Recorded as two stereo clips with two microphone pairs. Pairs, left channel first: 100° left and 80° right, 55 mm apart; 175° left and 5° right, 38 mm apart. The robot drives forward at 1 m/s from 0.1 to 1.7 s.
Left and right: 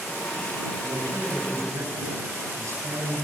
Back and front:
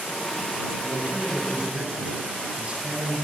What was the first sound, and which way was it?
A man speaking, 55° right.